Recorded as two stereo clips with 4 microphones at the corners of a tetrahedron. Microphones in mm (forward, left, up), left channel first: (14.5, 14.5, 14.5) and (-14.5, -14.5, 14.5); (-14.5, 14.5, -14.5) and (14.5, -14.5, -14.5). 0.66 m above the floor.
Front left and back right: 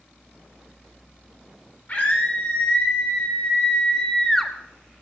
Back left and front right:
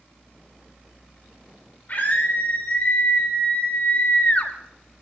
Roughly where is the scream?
Left.